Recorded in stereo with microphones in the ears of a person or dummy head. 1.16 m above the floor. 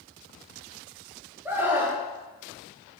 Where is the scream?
5° right (ahead or behind), 1.5 m.